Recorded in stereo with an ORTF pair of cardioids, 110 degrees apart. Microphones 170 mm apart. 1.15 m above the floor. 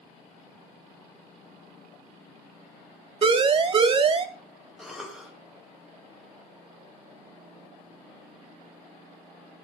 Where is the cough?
5° right, 6 m.